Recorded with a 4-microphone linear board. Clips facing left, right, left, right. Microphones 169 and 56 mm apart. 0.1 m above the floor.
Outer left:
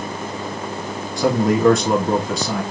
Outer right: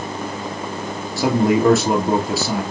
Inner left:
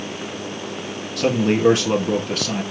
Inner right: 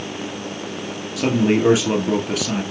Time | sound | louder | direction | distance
1.2 | a man speaking | outer right 1 dB, inner right 1 dB | 5° right (ahead or behind) | 1.8 m